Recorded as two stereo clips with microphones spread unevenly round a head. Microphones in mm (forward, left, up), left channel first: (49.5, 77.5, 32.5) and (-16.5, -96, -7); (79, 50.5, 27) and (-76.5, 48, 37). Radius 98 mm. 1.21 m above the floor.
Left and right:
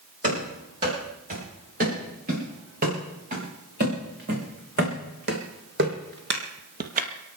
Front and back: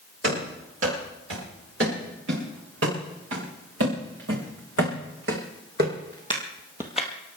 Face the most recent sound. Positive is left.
turn(degrees=-80)